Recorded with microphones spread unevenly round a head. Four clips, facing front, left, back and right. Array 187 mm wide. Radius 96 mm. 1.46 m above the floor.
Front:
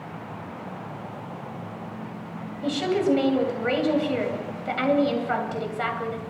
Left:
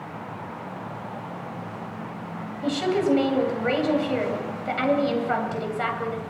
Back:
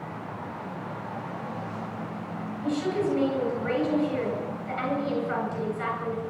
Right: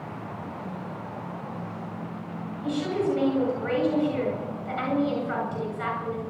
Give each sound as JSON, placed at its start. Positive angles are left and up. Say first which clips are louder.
{"t": 2.6, "sound": "a woman speaking", "louder": "left 4 dB, front 4 dB", "azimuth_deg": 35, "distance_m": 9.0}